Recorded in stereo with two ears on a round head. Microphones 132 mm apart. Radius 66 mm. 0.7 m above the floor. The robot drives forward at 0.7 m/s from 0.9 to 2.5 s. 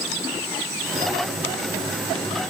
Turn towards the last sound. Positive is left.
No sound to turn to.